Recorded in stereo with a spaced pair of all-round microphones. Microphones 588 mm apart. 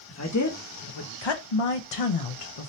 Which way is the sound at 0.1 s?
25° left (ahead or behind).